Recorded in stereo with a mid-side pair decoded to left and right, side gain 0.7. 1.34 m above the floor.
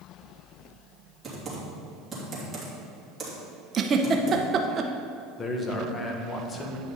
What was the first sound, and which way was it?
Typing on a keyboard, 20° right.